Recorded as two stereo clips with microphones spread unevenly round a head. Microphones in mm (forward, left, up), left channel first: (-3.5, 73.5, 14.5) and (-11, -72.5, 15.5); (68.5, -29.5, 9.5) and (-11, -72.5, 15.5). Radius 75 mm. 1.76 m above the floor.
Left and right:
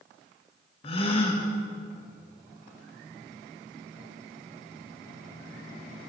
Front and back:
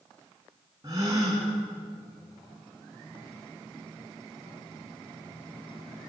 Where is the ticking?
I don't hear ticking.